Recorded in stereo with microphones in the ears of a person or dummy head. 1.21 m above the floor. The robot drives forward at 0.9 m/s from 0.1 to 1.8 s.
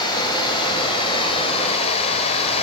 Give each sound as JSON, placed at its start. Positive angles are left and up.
{"t": 0.0, "sound": "running water", "side_deg": 25, "distance_m": 5.5}